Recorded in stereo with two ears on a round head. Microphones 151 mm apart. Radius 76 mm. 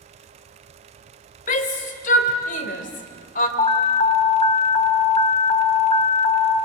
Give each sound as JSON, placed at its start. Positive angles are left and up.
{"t": 1.5, "sound": "a shout", "side_deg": 50, "distance_m": 2.5}
{"t": 3.6, "sound": "an alarm", "side_deg": 25, "distance_m": 1.0}